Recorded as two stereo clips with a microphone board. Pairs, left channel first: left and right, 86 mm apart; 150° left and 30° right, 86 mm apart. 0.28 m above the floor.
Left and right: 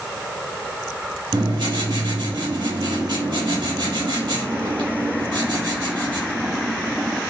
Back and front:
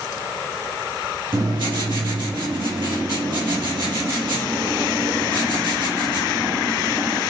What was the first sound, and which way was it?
Writing, 60° right.